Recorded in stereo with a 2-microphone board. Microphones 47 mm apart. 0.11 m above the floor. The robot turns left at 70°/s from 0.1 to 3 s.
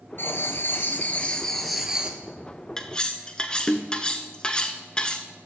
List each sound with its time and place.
0.2 s writing: 105° left, 1.1 m; by 2.2 s 35° right, 1.1 m
2.8 s cutlery clinking: 10° left (ahead or behind), 0.7 m; by 5.3 s 20° left (ahead or behind), 0.7 m